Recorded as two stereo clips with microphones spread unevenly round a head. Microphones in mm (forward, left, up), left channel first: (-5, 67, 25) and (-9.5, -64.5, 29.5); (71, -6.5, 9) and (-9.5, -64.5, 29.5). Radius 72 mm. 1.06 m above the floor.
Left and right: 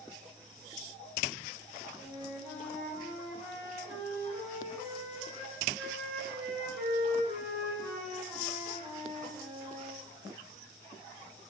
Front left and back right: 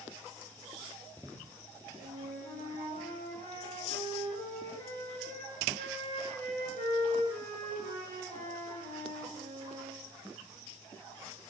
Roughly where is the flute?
Behind.